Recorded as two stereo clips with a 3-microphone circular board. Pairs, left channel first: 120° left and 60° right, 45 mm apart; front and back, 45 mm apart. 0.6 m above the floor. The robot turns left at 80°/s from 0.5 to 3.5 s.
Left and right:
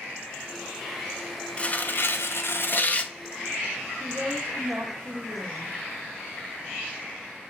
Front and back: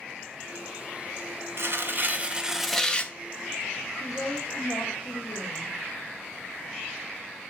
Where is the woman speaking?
10° right, 1.4 m.